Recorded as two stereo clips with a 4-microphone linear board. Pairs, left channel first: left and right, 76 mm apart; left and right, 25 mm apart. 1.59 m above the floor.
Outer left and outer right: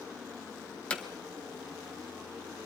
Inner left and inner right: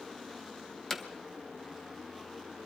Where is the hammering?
15° left (ahead or behind), 1.6 m.